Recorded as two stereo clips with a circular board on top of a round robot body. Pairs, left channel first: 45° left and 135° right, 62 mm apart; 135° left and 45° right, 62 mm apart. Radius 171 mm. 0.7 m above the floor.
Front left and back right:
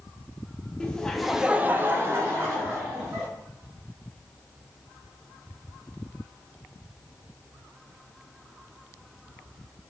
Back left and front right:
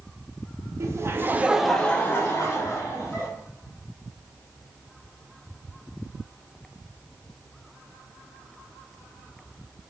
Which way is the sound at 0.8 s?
25° right.